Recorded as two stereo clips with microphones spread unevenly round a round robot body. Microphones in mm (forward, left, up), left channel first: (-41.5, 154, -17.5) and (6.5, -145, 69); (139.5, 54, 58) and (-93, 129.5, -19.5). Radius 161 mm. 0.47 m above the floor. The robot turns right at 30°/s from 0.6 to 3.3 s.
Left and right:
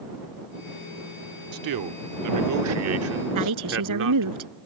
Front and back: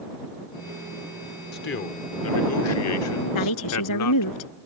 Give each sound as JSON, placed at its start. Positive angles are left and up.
{"t": 1.5, "sound": "a man speaking", "azimuth_deg": -80}
{"t": 3.4, "sound": "a woman speaking", "azimuth_deg": -45}